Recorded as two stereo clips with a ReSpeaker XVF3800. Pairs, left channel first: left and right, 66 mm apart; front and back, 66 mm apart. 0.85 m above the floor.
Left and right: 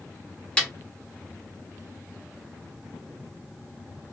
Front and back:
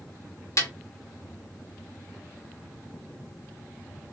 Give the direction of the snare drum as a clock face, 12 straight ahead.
11 o'clock.